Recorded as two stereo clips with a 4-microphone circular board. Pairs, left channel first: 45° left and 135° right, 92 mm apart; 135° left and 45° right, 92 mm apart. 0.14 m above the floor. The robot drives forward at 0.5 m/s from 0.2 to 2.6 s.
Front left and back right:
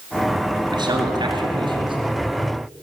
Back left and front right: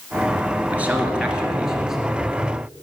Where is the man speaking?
115° right, 2 m; by 2.0 s 130° right, 2.5 m.